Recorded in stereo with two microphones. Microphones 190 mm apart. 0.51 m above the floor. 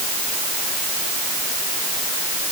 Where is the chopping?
No chopping in this recording.